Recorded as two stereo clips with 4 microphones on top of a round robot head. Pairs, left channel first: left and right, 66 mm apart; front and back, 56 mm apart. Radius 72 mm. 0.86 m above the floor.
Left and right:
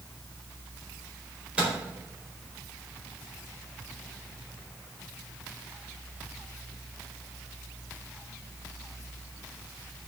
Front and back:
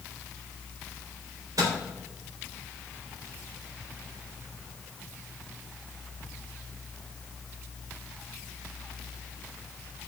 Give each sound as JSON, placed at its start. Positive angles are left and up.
{"t": 1.6, "sound": "a microwave", "azimuth_deg": -160, "distance_m": 4.0}